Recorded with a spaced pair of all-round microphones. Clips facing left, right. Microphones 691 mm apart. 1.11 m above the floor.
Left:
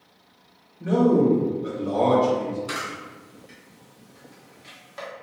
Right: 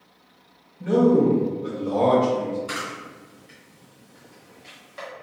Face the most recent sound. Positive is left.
turn(degrees=25)  # may be behind; listen again after turning